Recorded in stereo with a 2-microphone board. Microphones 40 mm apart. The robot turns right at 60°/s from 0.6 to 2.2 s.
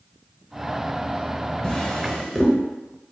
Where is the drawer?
25° left (ahead or behind), 0.9 m; by 2.5 s centre (ahead or behind), 0.9 m.